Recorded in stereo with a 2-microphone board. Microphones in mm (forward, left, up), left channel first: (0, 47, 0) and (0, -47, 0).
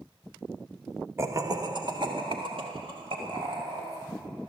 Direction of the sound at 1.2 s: 30° right (ahead or behind).